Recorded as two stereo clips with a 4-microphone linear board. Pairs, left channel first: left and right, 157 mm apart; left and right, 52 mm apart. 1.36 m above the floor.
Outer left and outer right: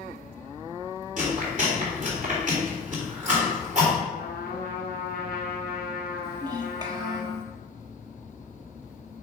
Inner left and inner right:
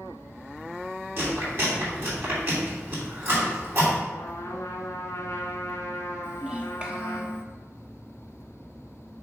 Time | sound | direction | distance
1.2 | chewing | 50° right (ahead or behind) | 3 m
4.1 | a trumpet | 70° left (ahead or behind) | 1.2 m
6.2 | a child speaking | 25° right (ahead or behind) | 1.2 m